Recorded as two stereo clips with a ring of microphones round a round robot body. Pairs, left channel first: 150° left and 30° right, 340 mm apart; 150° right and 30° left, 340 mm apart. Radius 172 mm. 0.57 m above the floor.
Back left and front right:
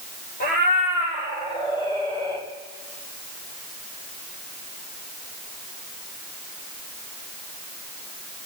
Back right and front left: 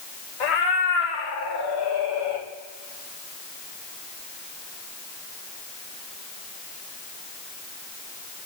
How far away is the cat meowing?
About 6 m.